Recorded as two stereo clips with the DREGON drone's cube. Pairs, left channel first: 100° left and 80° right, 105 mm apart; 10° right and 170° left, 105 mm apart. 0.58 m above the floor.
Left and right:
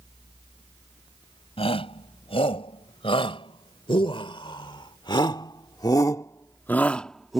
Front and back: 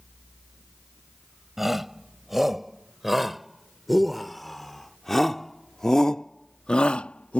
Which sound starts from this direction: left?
A shout, at 1.6 s.